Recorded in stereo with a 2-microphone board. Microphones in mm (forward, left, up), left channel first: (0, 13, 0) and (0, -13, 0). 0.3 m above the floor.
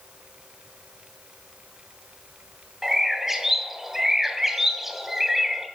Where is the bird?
15° right (ahead or behind), 2 m.